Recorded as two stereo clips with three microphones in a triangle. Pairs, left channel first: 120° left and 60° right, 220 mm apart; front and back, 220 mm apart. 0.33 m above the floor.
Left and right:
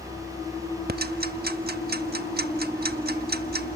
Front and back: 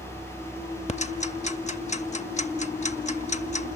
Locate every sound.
0.9 s ticking: 45° right, 0.7 m